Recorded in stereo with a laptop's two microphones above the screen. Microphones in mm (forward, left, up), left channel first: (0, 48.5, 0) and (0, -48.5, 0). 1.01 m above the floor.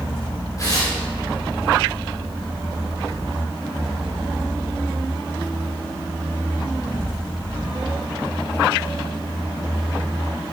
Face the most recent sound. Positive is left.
turn(degrees=40)  # may be behind; listen again after turning